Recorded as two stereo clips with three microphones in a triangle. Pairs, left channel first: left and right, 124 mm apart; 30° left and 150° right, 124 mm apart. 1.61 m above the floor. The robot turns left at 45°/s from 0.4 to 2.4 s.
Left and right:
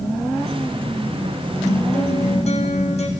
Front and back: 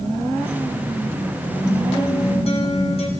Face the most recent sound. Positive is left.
turn(degrees=65)